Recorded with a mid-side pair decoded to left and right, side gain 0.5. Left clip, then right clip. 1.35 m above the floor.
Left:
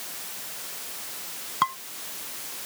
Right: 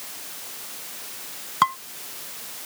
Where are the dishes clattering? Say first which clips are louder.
Right 5 dB; 30° right.